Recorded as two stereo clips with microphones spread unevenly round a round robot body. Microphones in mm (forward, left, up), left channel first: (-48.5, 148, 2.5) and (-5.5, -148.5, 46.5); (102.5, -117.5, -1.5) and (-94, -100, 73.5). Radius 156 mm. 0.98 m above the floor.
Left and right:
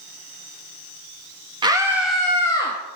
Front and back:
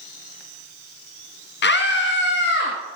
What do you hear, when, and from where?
1.6 s a scream: 5° right, 1.2 m; by 2.8 s 25° left, 1.5 m